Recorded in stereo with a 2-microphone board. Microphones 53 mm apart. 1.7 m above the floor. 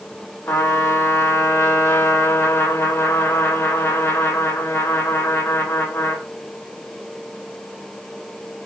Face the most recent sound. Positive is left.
turn(degrees=60)  # may be behind; listen again after turning